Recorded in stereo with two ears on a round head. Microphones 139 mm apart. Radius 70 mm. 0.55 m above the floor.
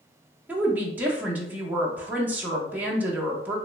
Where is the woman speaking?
10° right (ahead or behind), 0.8 m.